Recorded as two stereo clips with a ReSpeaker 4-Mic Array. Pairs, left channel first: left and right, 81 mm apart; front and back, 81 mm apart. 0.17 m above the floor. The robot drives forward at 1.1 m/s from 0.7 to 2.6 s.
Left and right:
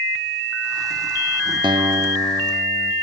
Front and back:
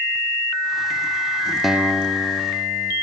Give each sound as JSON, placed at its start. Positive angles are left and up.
{"t": 1.6, "sound": "a guitar", "azimuth_deg": -90, "distance_m": 0.7}